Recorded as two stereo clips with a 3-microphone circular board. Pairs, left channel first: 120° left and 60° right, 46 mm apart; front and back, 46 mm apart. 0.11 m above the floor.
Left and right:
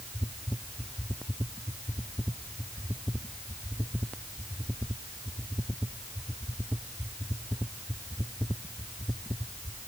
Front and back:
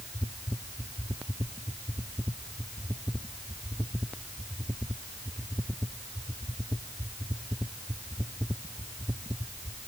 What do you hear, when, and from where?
Only background noise.